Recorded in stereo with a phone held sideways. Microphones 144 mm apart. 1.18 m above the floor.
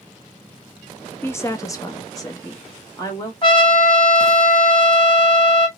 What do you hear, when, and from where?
1.2 s a woman speaking: 15° left (ahead or behind), 0.5 m; by 3.3 s 20° left (ahead or behind), 1.2 m
3.4 s a trumpet: 35° left (ahead or behind), 1.0 m